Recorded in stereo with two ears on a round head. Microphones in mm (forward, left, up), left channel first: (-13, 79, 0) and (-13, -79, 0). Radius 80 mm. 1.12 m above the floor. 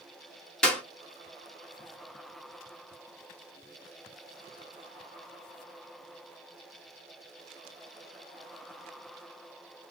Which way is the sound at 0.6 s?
5° left (ahead or behind).